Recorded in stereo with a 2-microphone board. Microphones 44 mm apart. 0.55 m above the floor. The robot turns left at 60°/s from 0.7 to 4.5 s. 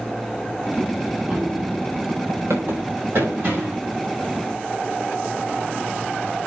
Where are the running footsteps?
20° right (ahead or behind), 4.5 m; by 3.8 s 30° right (ahead or behind), 6 m.